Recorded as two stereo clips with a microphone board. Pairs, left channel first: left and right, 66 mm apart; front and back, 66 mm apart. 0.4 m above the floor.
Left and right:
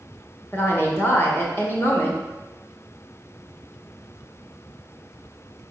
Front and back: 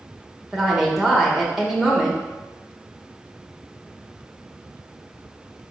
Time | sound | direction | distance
0.5 | a woman speaking | 95° left | 0.8 m